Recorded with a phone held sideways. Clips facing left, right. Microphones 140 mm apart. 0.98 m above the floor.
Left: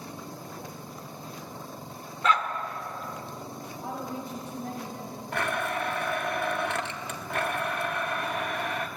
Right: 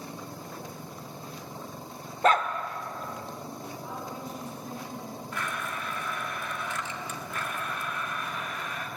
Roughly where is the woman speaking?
Left.